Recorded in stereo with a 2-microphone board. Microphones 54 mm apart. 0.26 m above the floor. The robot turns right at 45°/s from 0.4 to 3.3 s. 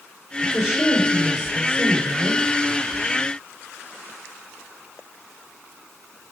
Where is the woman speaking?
175° left, 3.5 m; by 2.4 s 95° right, 3.5 m.